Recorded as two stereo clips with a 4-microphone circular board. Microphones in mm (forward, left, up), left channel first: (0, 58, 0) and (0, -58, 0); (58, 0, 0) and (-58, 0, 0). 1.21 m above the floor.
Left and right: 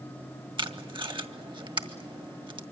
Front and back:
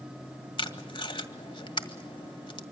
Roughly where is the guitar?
I don't hear a guitar.